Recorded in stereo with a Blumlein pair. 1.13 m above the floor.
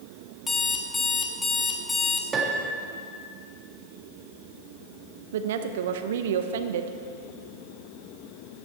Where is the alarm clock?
10° left, 1.3 m.